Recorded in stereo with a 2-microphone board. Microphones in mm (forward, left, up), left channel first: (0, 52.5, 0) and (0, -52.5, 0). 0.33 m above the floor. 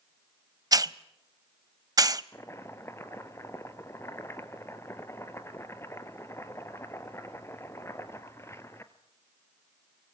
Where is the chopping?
25° left (ahead or behind), 1.3 m.